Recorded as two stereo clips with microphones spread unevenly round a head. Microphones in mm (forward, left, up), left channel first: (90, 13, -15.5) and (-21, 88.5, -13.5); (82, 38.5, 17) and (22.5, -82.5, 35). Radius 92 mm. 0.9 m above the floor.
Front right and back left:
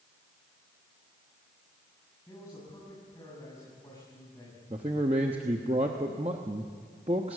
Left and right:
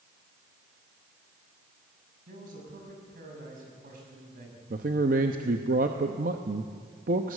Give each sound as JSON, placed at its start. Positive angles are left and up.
{"t": 2.3, "sound": "a man speaking", "azimuth_deg": -110, "distance_m": 6.0}
{"t": 4.7, "sound": "a man speaking", "azimuth_deg": -155, "distance_m": 0.9}